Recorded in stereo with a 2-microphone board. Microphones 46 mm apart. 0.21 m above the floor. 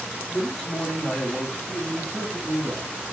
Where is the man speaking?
15° left (ahead or behind), 1.8 m; by 2.9 s 35° right (ahead or behind), 1.7 m.